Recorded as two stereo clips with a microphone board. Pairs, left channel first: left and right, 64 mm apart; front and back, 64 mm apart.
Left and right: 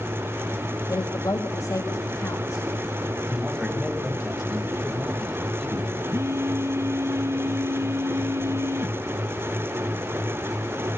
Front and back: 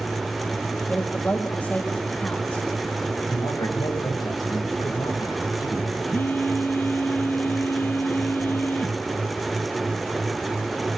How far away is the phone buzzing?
About 1.7 m.